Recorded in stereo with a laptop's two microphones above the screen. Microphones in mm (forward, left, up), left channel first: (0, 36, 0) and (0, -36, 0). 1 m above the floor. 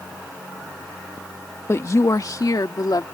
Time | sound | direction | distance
1.7 | a woman speaking | 40° left (ahead or behind) | ?